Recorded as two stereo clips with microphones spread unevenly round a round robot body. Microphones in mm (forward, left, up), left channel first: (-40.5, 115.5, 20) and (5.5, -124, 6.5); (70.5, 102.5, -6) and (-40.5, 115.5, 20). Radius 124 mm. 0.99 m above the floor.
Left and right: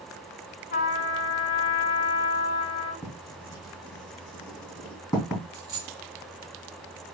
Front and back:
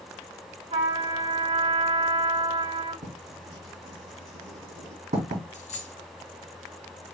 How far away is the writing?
About 3 m.